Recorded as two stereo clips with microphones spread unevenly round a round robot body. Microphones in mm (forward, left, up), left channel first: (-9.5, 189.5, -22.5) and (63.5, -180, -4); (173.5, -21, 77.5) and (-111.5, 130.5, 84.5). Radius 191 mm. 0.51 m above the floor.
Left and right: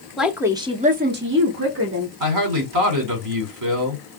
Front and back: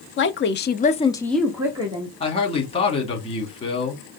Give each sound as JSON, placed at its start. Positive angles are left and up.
{"t": 0.2, "sound": "a woman speaking", "azimuth_deg": 10, "distance_m": 1.0}
{"t": 2.2, "sound": "a man speaking", "azimuth_deg": -95, "distance_m": 1.7}